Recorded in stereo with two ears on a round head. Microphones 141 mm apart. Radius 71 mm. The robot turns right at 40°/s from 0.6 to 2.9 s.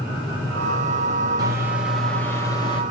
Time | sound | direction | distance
1.4 | a microwave | 25° right | 0.6 m